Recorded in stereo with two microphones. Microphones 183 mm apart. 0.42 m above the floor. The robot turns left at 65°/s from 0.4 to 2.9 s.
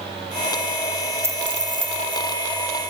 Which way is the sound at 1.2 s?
10° right.